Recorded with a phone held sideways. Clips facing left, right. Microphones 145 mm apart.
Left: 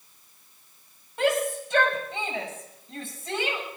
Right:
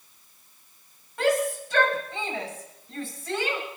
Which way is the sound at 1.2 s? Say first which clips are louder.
Right 1 dB; 20° left (ahead or behind).